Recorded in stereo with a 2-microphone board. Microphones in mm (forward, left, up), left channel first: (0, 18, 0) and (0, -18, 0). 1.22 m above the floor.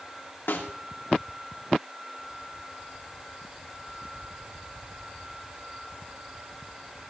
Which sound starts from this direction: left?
A snare drum, at 0.5 s.